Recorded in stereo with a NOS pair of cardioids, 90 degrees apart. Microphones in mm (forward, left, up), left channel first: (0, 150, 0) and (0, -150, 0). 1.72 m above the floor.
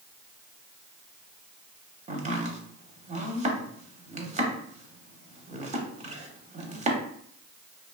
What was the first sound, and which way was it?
Chopping, 25° right.